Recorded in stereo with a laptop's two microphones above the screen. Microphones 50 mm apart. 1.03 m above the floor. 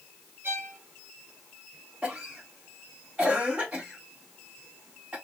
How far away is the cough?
About 1.5 m.